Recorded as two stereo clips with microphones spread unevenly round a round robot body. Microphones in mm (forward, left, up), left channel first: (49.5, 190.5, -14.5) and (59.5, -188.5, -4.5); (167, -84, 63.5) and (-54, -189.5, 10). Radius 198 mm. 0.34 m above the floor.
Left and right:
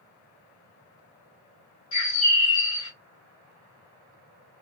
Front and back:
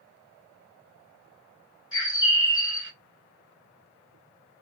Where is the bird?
55° left, 1.8 m.